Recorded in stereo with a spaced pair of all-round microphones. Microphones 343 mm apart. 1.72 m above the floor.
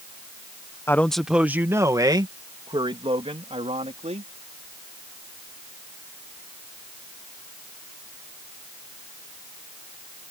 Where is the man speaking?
5° left (ahead or behind); by 4.3 s 20° right (ahead or behind).